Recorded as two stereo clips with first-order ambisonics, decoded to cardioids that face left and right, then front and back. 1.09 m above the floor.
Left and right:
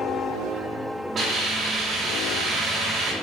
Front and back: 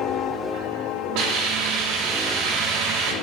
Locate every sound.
1.1 s a hiss: 155° right, 3 m